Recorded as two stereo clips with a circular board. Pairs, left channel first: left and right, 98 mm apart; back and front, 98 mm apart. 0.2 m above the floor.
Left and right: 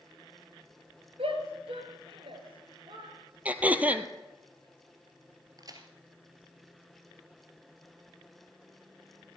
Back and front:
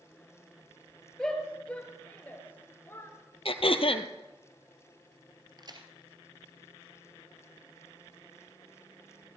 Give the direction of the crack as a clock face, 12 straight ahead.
1 o'clock.